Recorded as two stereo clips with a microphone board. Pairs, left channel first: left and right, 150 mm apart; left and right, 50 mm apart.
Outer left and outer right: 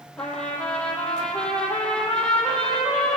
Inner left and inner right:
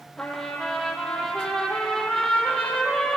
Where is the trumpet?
5° left (ahead or behind), 5 m.